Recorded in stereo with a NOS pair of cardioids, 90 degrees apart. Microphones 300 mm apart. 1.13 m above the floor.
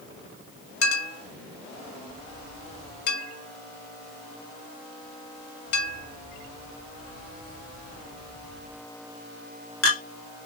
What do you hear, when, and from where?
0.8 s a clink: 50° left, 1.9 m